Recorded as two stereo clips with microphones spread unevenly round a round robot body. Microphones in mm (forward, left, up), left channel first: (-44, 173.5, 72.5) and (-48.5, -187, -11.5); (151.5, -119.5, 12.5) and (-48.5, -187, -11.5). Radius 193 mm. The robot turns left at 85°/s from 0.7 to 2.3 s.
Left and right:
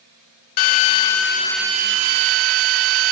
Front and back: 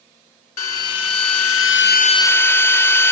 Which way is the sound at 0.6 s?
70° left.